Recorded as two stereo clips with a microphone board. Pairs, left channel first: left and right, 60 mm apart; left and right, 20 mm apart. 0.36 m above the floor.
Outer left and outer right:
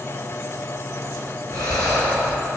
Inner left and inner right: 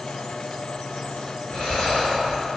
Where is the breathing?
80° left, 2.5 m.